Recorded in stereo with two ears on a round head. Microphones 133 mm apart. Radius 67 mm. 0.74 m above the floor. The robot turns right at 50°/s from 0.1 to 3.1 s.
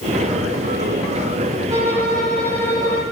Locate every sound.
1.7 s a violin: 25° right, 1.1 m; by 3.0 s 40° left, 1.1 m